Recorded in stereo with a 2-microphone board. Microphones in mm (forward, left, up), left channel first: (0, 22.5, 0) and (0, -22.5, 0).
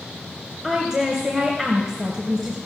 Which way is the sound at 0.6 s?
5° left (ahead or behind).